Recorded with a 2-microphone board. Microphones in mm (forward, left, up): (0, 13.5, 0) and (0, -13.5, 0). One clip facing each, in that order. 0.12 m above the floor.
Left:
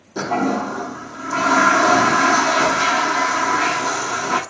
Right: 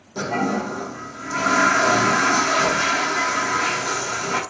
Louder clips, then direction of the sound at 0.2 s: Left 3 dB; 60° left (ahead or behind).